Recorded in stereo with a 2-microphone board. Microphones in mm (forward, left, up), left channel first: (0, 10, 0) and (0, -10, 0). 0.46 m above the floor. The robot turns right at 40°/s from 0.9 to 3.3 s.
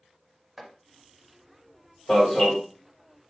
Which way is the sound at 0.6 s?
10° right (ahead or behind).